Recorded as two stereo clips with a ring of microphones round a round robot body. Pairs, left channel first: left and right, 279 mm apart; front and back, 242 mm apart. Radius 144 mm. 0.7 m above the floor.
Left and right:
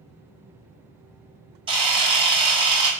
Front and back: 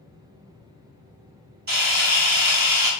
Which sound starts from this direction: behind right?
A camera shutter, at 1.7 s.